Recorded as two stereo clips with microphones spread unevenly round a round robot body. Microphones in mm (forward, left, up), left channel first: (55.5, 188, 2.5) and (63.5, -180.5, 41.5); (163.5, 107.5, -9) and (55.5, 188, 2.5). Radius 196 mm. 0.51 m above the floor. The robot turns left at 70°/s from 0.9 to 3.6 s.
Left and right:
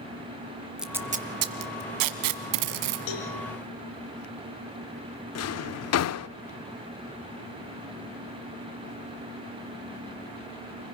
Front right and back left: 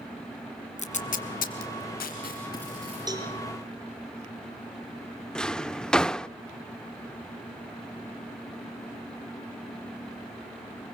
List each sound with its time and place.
0.8 s tape being pulled: straight ahead, 1.4 m; by 3.0 s 145° right, 1.4 m
3.1 s a cowbell: 85° left, 4.5 m; by 3.3 s 65° left, 4.5 m
5.3 s a drawer: 45° left, 0.6 m